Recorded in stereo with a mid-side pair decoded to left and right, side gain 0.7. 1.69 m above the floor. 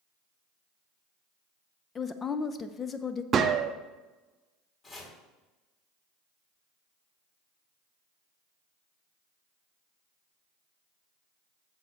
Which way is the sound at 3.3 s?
35° right.